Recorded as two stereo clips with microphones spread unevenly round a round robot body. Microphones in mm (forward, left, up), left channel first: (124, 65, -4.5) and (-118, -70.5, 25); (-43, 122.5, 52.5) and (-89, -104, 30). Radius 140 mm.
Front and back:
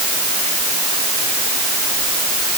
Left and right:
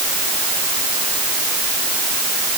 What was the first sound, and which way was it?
Only background noise.